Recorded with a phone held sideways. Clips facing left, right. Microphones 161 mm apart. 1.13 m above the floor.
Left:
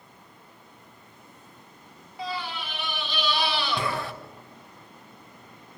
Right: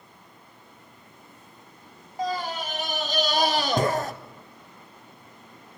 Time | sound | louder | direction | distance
2.2 | a scream | right 5 dB | 40° right (ahead or behind) | 1.3 m